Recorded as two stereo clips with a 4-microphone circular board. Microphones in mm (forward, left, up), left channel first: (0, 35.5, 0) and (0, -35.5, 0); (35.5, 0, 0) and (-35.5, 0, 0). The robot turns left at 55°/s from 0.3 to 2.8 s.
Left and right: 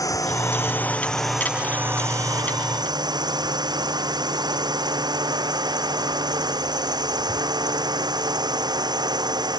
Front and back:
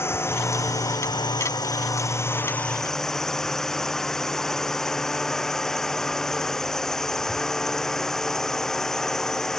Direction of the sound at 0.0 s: 55° left.